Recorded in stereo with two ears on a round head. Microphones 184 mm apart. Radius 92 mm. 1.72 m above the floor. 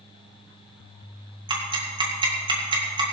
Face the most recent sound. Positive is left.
turn(degrees=-25)  # may be behind; listen again after turning